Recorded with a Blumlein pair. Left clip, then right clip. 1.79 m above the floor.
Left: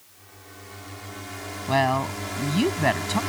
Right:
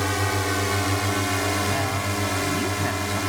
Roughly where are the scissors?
I don't hear scissors.